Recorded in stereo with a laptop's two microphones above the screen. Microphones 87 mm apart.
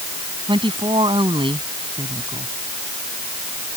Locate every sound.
0.5 s a woman speaking: 70° right (ahead or behind)